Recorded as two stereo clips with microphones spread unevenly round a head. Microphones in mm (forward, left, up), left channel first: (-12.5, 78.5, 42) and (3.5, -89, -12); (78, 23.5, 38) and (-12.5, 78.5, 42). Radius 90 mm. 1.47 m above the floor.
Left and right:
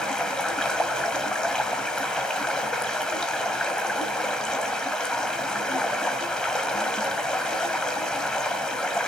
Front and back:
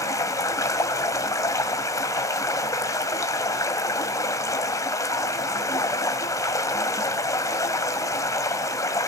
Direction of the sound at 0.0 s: 25° left.